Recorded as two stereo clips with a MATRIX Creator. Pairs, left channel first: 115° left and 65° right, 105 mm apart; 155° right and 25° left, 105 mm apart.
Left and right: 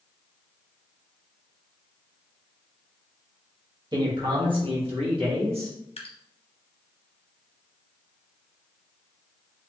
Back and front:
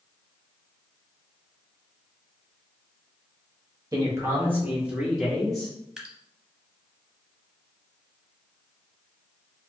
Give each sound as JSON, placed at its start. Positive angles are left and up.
{"t": 3.9, "sound": "a man speaking", "azimuth_deg": -30, "distance_m": 1.5}
{"t": 6.0, "sound": "dripping", "azimuth_deg": 105, "distance_m": 0.9}